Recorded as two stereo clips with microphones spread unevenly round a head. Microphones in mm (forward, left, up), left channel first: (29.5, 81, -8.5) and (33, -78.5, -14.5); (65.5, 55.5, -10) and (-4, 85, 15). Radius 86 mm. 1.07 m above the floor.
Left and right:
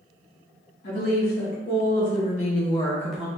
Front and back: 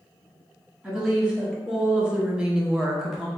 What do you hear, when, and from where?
0.8 s a woman speaking: 75° left, 1.8 m; by 3.3 s 45° right, 0.6 m